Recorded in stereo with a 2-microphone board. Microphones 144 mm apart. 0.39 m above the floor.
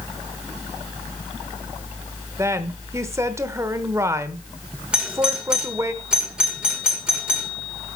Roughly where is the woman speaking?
Right.